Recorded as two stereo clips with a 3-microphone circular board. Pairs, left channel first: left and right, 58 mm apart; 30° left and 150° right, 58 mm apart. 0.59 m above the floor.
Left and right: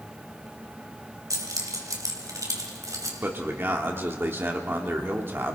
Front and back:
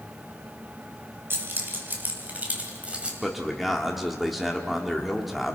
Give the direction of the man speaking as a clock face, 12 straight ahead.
2 o'clock.